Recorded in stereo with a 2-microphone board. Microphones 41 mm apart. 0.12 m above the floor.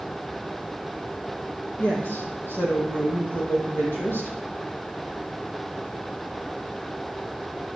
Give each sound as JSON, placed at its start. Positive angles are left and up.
{"t": 1.8, "sound": "a woman speaking", "side_deg": 65, "distance_m": 4.0}